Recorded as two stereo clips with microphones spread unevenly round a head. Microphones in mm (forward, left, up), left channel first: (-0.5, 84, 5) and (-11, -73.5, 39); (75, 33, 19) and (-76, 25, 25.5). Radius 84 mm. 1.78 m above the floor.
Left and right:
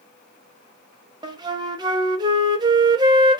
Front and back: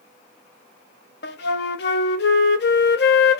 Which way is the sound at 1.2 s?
30° right.